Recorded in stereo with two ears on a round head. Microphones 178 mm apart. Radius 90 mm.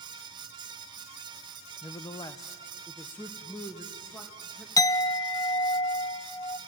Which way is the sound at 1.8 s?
20° left (ahead or behind).